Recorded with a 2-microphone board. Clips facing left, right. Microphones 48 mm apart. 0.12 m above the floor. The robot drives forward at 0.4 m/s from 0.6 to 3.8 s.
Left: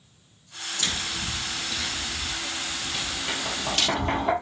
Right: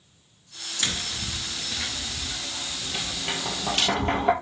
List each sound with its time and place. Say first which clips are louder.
0.8 s tapping: even; 30° right (ahead or behind), 1.0 m; by 4.3 s 15° right (ahead or behind), 1.8 m